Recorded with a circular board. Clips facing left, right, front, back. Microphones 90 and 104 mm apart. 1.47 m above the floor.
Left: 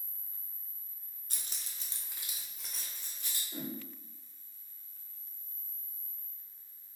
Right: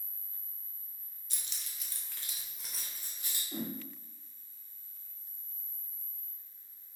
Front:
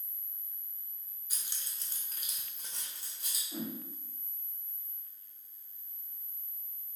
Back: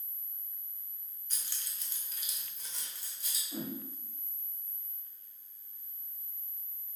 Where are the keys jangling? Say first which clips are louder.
Even, even; 80° left, 0.5 m; by 3.4 s 15° right, 1.0 m.